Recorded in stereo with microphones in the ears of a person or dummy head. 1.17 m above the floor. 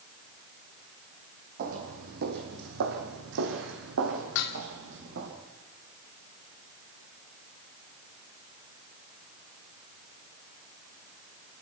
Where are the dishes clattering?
75° left (ahead or behind), 1.6 m.